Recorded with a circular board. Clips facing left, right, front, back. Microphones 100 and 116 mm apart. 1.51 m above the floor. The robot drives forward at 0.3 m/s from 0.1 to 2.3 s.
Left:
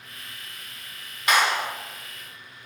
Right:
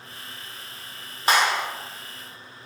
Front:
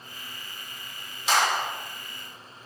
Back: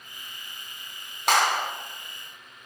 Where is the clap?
145° right, 0.7 m; by 1.6 s 150° right, 0.8 m.